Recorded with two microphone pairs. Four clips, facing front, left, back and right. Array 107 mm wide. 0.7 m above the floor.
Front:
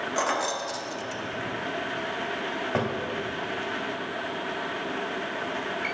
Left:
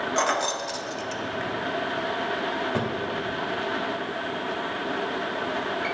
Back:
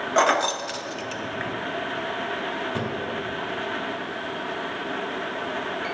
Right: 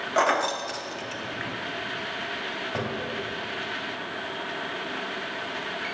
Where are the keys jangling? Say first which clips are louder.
Right 4 dB, back 8 dB; 160° right, 0.7 m.